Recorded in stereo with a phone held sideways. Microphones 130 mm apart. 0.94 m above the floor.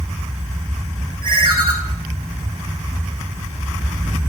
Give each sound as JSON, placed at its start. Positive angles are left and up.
{"t": 1.2, "sound": "a ringtone", "side_deg": -40, "distance_m": 3.0}